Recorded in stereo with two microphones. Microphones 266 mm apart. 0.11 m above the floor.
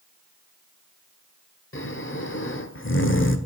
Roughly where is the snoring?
Left.